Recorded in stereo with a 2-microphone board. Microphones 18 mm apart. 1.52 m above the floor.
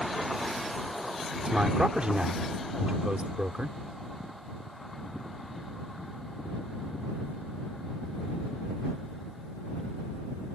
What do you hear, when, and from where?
1.4 s a man speaking: 65° right (ahead or behind)